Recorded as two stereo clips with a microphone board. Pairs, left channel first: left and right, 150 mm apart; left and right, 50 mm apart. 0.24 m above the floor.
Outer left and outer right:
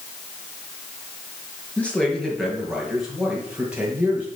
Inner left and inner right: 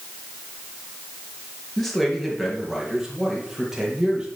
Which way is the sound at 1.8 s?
10° left (ahead or behind).